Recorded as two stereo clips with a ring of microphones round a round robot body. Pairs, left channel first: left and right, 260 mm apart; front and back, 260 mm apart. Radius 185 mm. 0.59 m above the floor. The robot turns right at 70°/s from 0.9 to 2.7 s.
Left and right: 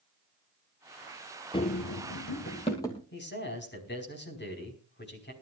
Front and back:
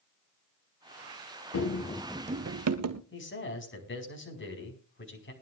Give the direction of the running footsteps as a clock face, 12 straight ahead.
11 o'clock.